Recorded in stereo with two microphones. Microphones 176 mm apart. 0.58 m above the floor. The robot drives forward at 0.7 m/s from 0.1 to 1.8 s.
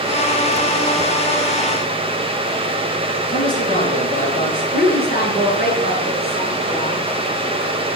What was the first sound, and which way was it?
A man speaking, 45° left (ahead or behind).